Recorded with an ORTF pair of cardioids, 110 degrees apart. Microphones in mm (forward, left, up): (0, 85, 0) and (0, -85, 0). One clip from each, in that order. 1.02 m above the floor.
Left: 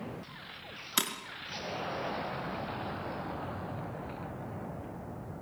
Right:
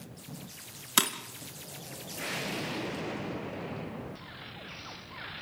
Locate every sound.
1.0 s breaking glass: 25° right, 3 m